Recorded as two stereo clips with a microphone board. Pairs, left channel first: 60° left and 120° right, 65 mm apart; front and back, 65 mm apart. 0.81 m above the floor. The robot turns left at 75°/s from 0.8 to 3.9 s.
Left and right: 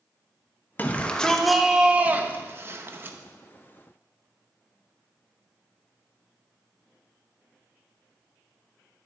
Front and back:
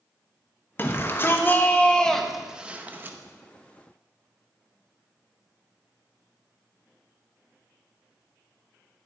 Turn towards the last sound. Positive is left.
turn(degrees=150)